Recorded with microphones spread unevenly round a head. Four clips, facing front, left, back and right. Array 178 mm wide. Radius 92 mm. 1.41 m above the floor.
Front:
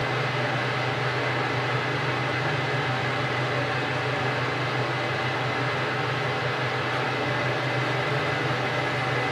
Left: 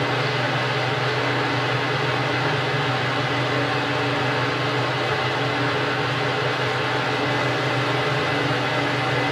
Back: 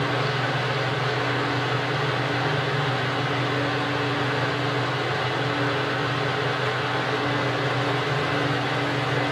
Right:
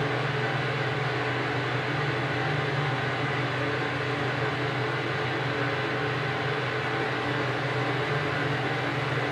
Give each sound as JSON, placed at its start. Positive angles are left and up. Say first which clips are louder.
{"t": 0.0, "sound": "a fan", "louder": "left 5 dB, back 2 dB", "azimuth_deg": 90, "distance_m": 7.5}